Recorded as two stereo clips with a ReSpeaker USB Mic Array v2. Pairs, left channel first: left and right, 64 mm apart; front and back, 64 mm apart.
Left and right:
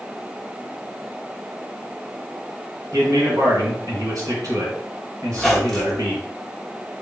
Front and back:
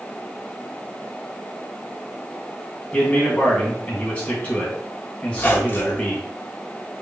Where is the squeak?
10° left, 0.8 m.